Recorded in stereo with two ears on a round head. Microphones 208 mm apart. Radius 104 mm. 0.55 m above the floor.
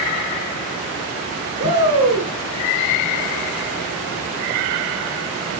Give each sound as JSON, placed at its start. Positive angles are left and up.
{"t": 1.6, "sound": "a shout", "side_deg": -15, "distance_m": 6.0}